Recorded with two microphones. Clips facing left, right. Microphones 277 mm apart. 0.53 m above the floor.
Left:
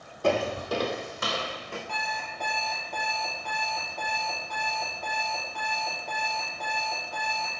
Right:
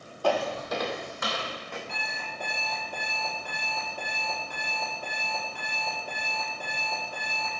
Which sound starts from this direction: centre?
An alarm clock, at 1.9 s.